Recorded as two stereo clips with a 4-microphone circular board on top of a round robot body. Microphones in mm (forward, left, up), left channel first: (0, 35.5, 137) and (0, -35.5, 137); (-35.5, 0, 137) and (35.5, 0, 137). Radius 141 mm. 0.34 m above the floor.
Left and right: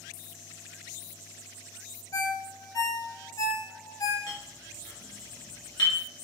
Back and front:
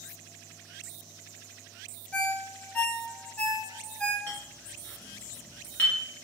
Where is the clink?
115° left, 1.3 m.